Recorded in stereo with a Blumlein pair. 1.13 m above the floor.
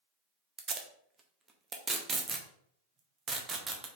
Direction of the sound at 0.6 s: 20° right.